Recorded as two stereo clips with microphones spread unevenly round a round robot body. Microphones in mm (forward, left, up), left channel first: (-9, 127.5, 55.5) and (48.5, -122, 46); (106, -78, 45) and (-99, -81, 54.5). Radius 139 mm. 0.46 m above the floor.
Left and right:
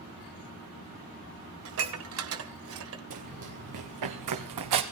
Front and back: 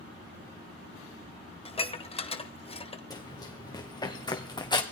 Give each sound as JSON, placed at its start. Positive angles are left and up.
{"t": 1.6, "sound": "dishes clattering", "azimuth_deg": -60, "distance_m": 1.7}
{"t": 3.1, "sound": "running footsteps", "azimuth_deg": -70, "distance_m": 3.0}